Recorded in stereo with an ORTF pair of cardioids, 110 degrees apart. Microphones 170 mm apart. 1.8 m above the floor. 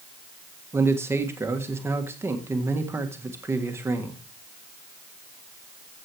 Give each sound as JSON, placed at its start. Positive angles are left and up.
{"t": 0.7, "sound": "a man speaking", "azimuth_deg": -15, "distance_m": 1.7}